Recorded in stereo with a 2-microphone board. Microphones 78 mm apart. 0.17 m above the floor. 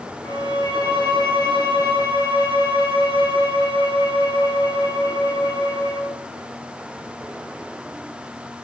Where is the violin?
60° left (ahead or behind), 3 m.